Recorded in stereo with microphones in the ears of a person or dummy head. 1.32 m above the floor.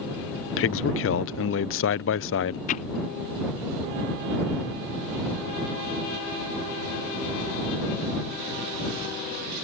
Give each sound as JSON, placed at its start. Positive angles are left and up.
{"t": 0.6, "sound": "a man speaking", "side_deg": 55}
{"t": 2.7, "sound": "hammering", "side_deg": 35}